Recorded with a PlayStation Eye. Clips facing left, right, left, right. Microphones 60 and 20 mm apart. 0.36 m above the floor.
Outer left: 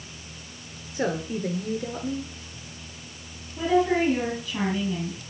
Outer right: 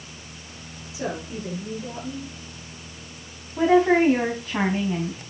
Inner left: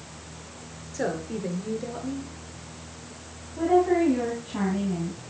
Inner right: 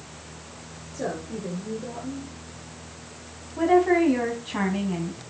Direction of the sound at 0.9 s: 50° left (ahead or behind).